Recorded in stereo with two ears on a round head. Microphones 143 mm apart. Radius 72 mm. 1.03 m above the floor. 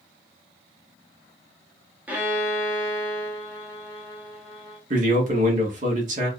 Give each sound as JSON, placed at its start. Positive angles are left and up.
{"t": 2.1, "sound": "a violin", "side_deg": -10, "distance_m": 0.9}
{"t": 4.9, "sound": "a man speaking", "side_deg": -50, "distance_m": 1.2}